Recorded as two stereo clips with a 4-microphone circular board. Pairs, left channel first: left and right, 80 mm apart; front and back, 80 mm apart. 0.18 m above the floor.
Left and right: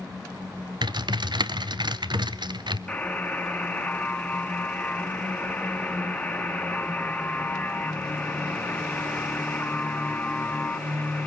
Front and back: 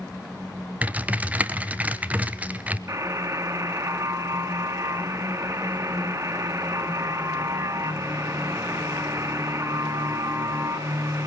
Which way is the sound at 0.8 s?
110° right.